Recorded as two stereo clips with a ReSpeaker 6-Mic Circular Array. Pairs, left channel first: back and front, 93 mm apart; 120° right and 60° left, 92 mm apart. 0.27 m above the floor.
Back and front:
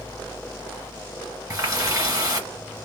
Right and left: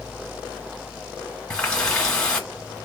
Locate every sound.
1.5 s a running tap: 40° right, 1.5 m